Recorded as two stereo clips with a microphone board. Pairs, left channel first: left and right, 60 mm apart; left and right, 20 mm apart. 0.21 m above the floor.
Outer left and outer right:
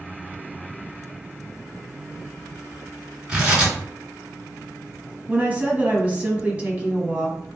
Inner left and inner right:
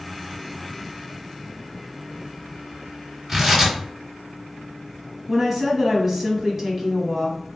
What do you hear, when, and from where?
3.3 s tearing paper: 15° right (ahead or behind), 2.0 m
5.3 s a woman speaking: 25° right (ahead or behind), 1.2 m